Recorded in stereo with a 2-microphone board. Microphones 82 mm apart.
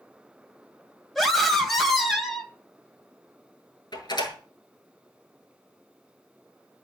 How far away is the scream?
About 3 m.